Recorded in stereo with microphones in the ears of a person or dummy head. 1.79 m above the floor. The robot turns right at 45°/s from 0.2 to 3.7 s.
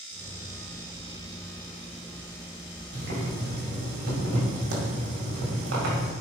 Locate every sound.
2.9 s boiling: 125° right, 2 m; by 6.1 s 90° right, 2 m